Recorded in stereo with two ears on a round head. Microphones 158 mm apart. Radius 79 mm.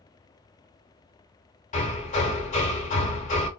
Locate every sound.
1.7 s hammering: 45° left (ahead or behind), 1.6 m